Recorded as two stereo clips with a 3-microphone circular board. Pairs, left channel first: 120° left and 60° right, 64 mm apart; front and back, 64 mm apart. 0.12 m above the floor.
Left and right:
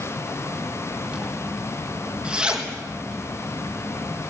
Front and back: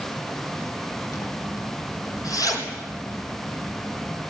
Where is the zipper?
15° left, 3.5 m.